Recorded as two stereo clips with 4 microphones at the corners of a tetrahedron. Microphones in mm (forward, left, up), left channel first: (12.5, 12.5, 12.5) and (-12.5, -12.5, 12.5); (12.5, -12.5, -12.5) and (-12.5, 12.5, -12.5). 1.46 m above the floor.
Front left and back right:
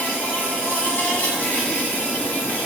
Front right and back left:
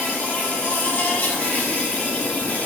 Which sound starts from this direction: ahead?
An insect, at 0.0 s.